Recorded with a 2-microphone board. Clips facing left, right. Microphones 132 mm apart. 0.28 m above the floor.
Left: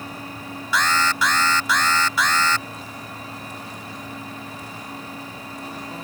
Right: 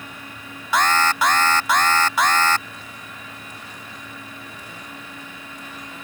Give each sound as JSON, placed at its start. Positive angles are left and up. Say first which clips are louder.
{"t": 0.7, "sound": "an alarm", "louder": "right 3 dB", "side_deg": -55}